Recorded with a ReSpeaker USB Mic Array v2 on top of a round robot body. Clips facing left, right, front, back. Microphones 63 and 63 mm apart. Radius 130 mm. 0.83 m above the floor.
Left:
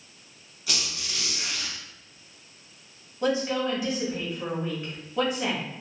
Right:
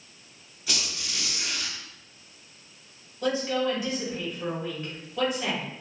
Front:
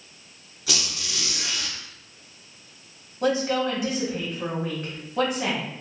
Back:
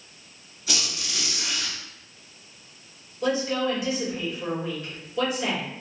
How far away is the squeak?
About 0.7 m.